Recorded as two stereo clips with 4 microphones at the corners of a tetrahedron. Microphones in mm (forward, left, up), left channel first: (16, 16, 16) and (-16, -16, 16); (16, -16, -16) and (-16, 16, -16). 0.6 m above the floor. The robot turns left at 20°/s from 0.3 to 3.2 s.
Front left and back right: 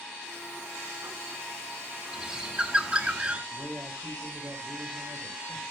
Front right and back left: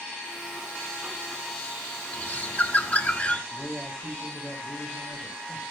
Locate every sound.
2.1 s a bird: 65° right, 1.2 m; by 3.4 s 85° right, 1.2 m
3.5 s a man speaking: 120° right, 2.5 m